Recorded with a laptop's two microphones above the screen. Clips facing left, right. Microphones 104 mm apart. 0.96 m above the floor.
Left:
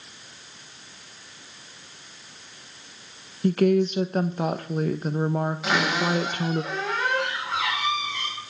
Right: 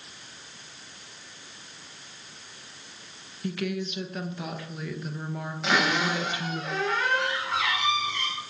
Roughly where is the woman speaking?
Left.